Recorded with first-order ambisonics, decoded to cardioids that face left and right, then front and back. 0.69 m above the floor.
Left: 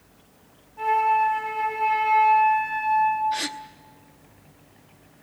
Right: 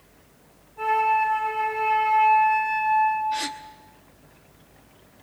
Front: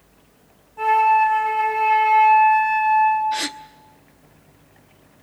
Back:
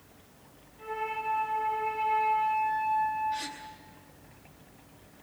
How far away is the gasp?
About 0.9 m.